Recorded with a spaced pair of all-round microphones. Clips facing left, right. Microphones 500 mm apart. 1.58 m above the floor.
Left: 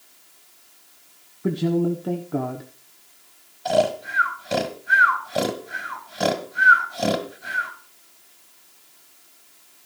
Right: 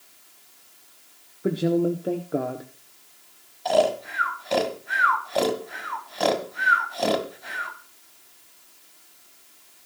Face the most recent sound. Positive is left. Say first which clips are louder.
# even
turn(degrees=35)  # may be behind; listen again after turning